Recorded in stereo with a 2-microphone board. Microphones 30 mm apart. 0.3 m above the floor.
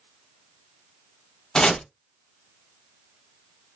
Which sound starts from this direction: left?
Chopping, at 1.6 s.